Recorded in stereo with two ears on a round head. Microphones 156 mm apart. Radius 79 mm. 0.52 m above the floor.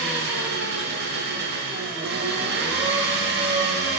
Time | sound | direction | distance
0.0 | an engine running | 65° right (ahead or behind) | 0.8 m